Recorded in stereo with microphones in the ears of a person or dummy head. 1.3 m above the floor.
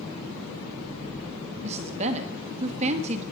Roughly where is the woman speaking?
Right.